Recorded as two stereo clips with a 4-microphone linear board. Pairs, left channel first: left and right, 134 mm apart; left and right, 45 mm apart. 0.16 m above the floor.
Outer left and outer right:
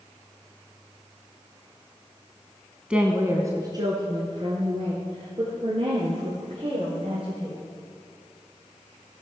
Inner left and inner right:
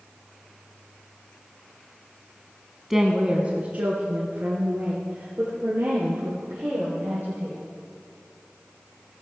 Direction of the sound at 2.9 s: 10° right (ahead or behind).